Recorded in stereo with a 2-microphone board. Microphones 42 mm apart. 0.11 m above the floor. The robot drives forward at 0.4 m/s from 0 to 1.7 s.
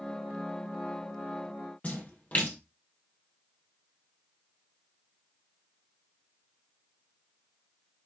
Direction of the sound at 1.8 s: 35° left (ahead or behind).